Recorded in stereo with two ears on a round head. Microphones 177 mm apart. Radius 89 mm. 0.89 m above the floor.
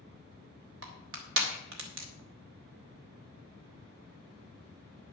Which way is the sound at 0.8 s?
70° right (ahead or behind).